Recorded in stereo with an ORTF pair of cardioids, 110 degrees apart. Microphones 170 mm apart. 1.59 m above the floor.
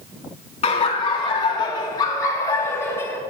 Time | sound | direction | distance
0.6 | laughter | 35° left | 3.5 m